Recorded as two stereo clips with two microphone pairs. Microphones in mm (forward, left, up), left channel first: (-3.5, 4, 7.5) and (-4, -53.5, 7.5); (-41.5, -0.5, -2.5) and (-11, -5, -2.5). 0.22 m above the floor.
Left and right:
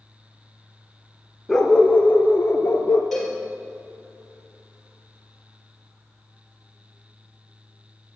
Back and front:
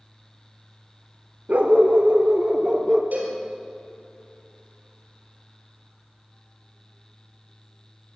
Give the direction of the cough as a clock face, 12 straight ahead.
No cough in this recording.